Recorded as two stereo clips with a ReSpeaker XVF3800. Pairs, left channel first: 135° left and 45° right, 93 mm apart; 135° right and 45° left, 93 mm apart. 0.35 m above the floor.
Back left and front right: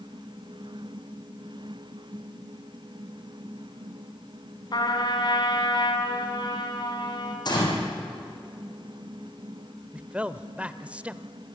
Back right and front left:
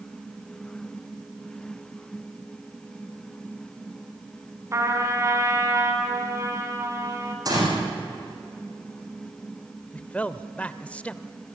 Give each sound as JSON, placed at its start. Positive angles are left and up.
{"t": 4.7, "sound": "a trumpet", "azimuth_deg": 100, "distance_m": 4.0}
{"t": 7.5, "sound": "a gunshot", "azimuth_deg": 95, "distance_m": 8.0}
{"t": 9.9, "sound": "a man speaking", "azimuth_deg": -90, "distance_m": 0.9}